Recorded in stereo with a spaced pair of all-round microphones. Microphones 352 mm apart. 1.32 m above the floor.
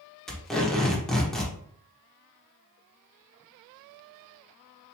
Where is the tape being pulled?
Centre (ahead or behind), 1.1 m.